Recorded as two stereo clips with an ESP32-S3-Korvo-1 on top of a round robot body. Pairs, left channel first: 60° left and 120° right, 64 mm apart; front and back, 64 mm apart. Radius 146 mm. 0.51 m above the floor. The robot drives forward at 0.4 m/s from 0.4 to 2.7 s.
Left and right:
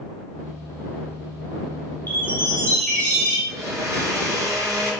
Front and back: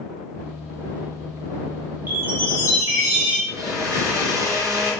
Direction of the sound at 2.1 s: 115° left.